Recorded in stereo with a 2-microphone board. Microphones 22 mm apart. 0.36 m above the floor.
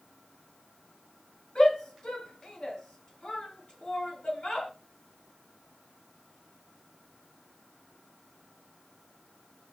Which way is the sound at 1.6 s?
50° left (ahead or behind).